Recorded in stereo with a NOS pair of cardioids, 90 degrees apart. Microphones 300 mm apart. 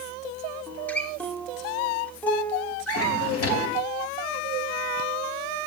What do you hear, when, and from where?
0.7 s a guitar: 5° left, 2.5 m
2.9 s a drawer: 50° left, 3.5 m